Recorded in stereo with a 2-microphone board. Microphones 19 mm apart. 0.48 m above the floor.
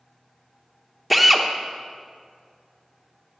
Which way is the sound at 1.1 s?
5° left (ahead or behind).